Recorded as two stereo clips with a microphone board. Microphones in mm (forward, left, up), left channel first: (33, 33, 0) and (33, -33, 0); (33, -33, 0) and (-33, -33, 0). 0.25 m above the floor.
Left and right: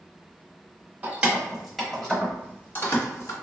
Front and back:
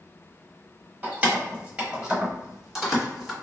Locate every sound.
1.0 s keys jangling: 135° right, 1.1 m; by 3.3 s 95° left, 1.3 m